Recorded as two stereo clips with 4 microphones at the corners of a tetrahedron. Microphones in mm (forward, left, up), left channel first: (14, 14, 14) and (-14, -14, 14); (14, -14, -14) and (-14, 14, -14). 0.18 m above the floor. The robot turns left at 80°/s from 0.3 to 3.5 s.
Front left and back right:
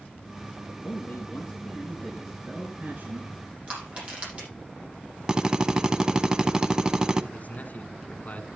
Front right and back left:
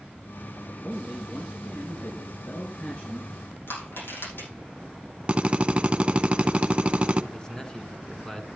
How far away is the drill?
About 0.7 m.